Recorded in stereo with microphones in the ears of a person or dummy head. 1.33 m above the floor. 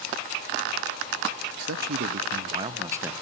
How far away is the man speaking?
About 1.4 m.